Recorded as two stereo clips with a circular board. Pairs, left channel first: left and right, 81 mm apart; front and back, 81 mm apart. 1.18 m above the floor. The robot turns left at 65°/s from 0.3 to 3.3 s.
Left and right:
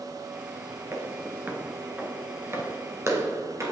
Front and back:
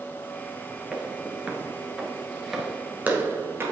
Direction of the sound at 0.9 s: 110° right.